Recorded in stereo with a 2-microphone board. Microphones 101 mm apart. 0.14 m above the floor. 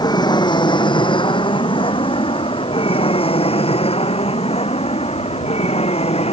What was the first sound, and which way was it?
An aircraft, 45° left (ahead or behind).